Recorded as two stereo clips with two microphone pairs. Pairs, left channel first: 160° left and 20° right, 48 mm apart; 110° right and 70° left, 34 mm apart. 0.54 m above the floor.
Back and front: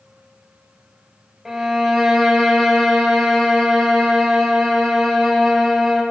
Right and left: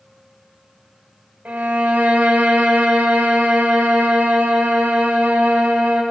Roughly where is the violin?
Ahead left.